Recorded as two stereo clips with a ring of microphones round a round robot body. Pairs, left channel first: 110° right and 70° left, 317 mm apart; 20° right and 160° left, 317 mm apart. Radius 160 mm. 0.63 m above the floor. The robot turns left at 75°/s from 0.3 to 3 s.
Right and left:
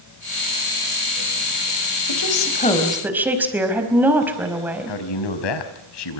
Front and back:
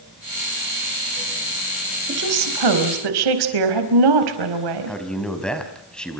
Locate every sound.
2.1 s a woman speaking: 140° right, 4.5 m; by 5.0 s 150° left, 4.5 m
4.9 s a man speaking: 110° right, 4 m